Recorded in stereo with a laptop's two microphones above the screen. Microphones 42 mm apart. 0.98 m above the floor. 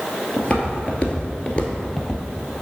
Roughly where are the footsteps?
Left.